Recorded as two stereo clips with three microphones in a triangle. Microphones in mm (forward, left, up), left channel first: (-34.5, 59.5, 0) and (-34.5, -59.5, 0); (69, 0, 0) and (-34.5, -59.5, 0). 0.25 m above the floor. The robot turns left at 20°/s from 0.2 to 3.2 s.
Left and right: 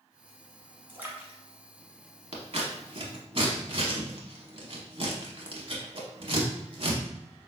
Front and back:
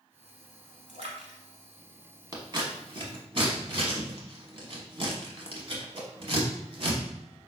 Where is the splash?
160° right, 0.9 m; by 1.4 s 170° right, 0.9 m.